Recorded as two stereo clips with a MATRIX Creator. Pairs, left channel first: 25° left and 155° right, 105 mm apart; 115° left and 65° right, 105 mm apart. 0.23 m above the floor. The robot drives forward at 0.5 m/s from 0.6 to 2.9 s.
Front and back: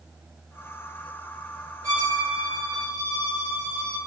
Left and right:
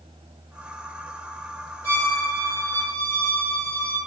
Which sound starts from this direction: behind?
A violin, at 1.8 s.